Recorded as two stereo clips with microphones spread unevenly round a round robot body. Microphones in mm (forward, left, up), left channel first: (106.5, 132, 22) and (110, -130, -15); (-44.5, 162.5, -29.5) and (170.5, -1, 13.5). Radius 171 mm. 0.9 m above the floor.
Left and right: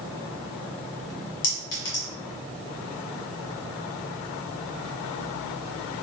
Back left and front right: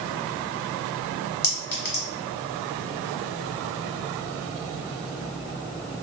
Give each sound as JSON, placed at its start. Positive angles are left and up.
{"t": 1.4, "sound": "a clink", "azimuth_deg": 90, "distance_m": 1.7}